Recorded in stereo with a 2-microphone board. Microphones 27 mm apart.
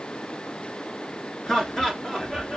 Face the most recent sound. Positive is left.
turn(degrees=20)  # may be behind; listen again after turning